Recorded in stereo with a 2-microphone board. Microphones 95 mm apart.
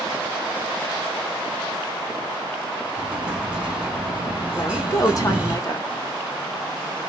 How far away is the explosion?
About 1.4 m.